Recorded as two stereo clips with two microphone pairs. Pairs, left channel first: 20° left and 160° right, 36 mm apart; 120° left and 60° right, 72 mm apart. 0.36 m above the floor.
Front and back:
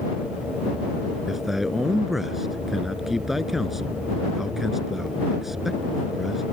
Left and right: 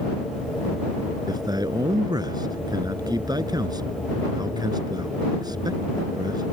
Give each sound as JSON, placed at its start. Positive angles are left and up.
{"t": 1.3, "sound": "a man speaking", "azimuth_deg": -75}